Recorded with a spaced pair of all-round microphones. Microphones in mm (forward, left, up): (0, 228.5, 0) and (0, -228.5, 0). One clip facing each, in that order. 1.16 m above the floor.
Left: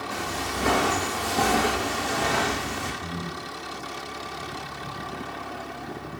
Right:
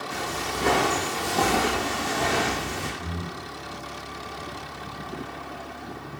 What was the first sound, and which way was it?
Footsteps, 5° left (ahead or behind).